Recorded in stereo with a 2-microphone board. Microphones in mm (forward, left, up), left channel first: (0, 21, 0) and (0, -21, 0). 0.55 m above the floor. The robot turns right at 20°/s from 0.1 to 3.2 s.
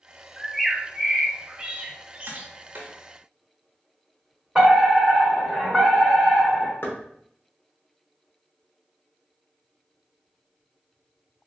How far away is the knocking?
About 0.7 m.